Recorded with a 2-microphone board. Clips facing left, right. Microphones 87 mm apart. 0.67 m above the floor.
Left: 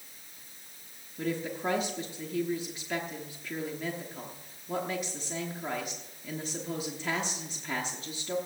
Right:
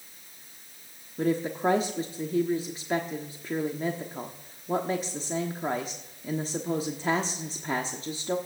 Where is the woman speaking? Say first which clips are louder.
Right 6 dB; 35° right (ahead or behind), 1.0 m.